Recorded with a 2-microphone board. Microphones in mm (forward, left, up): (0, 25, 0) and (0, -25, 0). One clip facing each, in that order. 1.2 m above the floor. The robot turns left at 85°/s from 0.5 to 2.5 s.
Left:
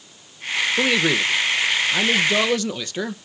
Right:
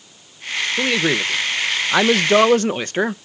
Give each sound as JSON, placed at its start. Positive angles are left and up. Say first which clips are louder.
{"t": 0.8, "sound": "a man speaking", "louder": "right 1 dB", "azimuth_deg": 10, "distance_m": 0.6}